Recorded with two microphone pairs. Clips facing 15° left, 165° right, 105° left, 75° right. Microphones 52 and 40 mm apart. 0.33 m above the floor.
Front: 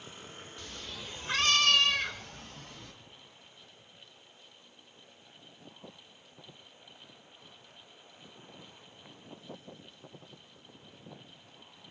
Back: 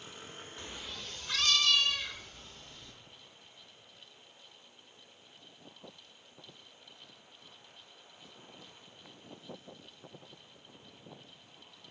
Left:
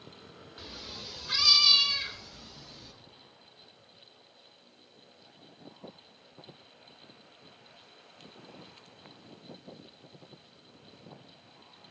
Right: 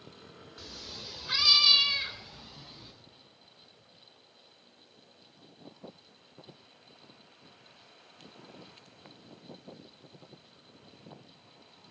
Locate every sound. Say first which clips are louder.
0.6 s a cat meowing: front 1 dB, left 1 dB; 160° left, 0.6 m; by 2.9 s 5° right, 1.9 m